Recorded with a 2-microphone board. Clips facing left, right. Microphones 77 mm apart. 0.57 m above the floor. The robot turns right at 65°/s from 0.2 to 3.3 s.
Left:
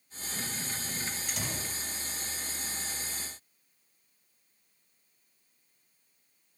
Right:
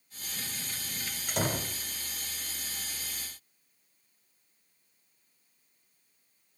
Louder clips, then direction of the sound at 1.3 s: Right 6 dB; 125° right.